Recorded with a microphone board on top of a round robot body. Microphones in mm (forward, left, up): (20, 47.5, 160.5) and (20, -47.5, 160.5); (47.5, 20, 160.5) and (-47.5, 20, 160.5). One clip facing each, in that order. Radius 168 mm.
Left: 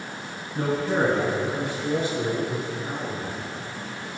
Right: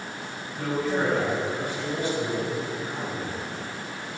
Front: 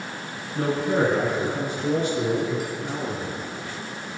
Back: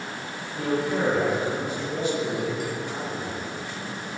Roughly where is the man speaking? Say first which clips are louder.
Left 3 dB, front 3 dB; ahead left.